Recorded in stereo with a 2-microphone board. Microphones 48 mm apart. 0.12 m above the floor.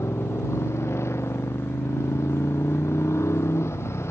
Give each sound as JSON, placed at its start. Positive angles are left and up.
{"t": 0.0, "sound": "a motorcycle", "side_deg": 65}